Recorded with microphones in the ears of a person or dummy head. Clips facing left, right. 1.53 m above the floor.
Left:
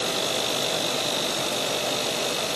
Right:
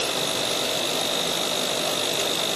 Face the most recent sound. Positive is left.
No sound to turn to.